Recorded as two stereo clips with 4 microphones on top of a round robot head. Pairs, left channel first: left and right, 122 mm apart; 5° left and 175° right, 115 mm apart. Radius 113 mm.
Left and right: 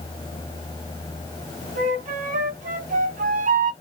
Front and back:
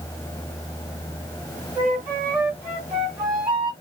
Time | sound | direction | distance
1.8 | a flute | 100° right | 2.5 m